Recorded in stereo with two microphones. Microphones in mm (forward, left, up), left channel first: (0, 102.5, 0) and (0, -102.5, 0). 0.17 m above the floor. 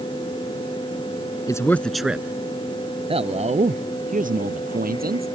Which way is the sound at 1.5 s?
15° left (ahead or behind).